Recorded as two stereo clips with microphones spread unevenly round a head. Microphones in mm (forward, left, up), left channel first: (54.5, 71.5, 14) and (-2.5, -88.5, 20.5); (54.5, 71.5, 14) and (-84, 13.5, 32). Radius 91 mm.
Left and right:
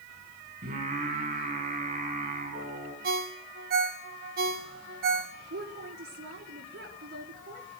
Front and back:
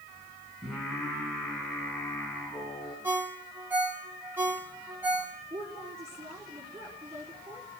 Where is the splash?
No splash in this recording.